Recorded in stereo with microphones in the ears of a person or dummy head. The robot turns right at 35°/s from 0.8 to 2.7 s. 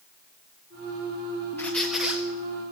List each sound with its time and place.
1.6 s a squeak: 15° left (ahead or behind), 1.5 m; by 2.2 s 10° right (ahead or behind), 1.5 m